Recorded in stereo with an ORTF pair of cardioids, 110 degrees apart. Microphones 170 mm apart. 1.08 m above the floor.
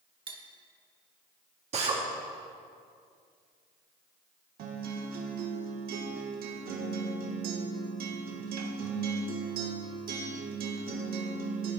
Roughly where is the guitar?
Ahead right.